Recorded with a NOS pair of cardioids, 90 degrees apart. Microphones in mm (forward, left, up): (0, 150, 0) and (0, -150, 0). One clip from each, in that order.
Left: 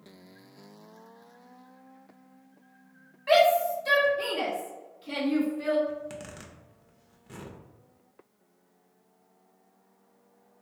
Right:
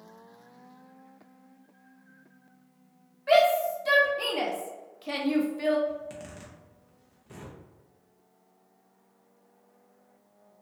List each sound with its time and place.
3.3 s a shout: 15° left, 1.0 m; by 5.8 s 75° right, 1.1 m
5.9 s a zipper: 20° left, 0.6 m